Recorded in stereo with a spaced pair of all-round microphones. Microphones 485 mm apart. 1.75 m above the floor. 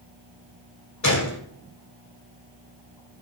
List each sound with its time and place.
1.0 s a gunshot: 35° left (ahead or behind), 1.3 m